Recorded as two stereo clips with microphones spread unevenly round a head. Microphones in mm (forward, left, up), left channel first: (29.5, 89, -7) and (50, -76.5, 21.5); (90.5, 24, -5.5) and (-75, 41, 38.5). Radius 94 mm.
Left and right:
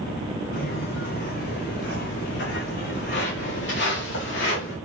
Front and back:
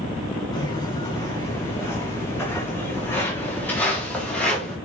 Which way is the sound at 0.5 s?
65° left.